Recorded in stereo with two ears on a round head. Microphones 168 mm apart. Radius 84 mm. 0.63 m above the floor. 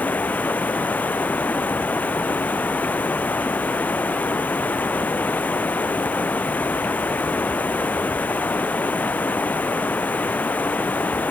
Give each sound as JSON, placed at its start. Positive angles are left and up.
{"t": 0.0, "sound": "running water", "side_deg": 10}